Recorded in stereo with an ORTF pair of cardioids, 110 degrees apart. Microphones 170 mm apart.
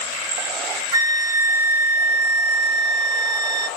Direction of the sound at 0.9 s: 25° right.